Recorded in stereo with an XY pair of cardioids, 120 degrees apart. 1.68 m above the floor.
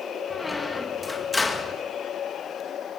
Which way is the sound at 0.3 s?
15° left.